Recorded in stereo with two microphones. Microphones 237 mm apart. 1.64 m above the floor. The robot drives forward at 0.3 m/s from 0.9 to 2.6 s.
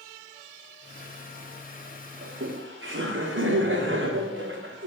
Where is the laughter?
60° right (ahead or behind), 1.2 m; by 4.9 s 55° right (ahead or behind), 1.3 m.